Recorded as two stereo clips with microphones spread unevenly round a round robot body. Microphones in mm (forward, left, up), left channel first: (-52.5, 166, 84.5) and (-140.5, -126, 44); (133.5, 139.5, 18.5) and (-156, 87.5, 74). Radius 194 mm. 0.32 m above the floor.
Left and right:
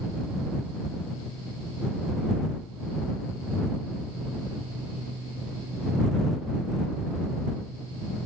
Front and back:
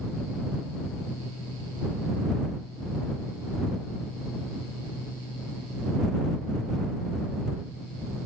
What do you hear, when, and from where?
Only background noise.